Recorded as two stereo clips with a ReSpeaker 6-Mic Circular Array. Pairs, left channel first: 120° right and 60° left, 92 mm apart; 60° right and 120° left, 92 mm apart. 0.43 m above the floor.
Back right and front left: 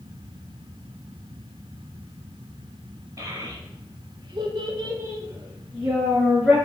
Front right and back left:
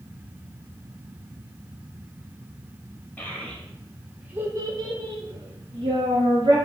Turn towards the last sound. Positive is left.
turn(degrees=145)